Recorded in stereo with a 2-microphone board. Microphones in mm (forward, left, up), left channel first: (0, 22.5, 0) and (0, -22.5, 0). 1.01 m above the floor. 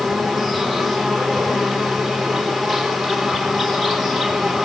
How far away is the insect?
About 4 m.